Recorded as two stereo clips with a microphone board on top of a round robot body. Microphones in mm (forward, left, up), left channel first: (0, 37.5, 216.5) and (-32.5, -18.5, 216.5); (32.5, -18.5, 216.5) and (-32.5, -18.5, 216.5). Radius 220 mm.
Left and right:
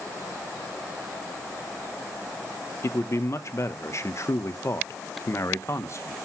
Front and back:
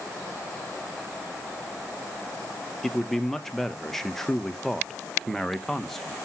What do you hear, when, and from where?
2.8 s a man speaking: 85° left, 0.9 m